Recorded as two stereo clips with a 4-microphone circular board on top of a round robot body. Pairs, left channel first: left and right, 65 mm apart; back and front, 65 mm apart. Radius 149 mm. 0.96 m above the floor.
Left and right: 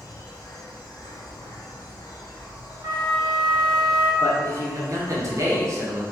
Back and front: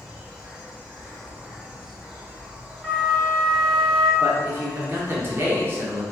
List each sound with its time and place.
0.0 s an insect: 75° left, 1.2 m
2.8 s a flute: 80° right, 1.4 m
4.2 s a man speaking: 55° right, 1.6 m